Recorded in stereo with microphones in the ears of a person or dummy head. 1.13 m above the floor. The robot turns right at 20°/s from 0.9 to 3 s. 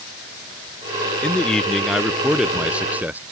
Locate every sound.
1.2 s a man speaking: 10° left (ahead or behind); by 3.2 s 5° right (ahead or behind)